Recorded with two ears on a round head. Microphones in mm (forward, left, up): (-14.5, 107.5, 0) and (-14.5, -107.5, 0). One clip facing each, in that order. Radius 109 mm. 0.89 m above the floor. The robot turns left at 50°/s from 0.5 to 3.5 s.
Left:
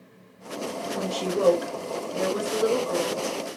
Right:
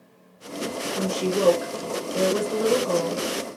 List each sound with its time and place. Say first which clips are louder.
0.9 s a woman speaking: right 3 dB; 20° left, 2 m; by 3.2 s 95° right, 2 m